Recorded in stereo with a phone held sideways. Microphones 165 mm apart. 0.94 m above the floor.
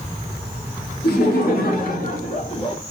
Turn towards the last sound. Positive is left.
turn(degrees=30)  # may be behind; listen again after turning